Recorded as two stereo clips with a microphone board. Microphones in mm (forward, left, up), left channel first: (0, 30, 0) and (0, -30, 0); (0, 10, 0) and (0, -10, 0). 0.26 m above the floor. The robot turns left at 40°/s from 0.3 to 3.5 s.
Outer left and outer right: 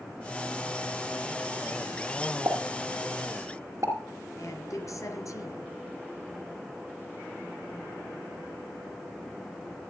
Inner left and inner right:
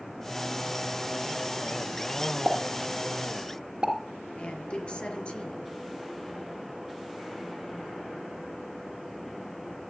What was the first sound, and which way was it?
A pop, 70° right (ahead or behind).